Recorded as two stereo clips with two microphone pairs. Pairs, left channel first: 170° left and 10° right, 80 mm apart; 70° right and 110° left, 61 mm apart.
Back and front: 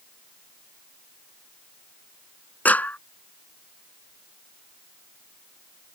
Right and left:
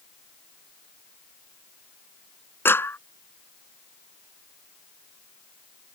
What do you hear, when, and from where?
2.6 s a clap: 120° right